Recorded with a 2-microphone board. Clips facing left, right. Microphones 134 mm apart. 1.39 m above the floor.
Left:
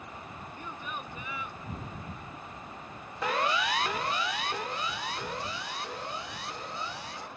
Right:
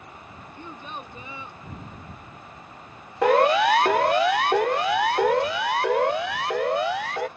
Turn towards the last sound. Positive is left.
turn(degrees=-90)